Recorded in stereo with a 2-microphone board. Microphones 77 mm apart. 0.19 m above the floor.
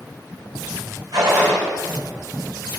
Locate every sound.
1.1 s a gunshot: 50° right (ahead or behind), 4 m